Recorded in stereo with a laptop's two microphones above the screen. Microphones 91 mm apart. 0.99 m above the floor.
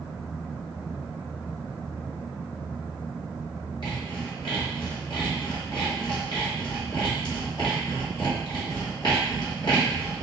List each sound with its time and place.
3.8 s sawing: 55° left (ahead or behind), 1.8 m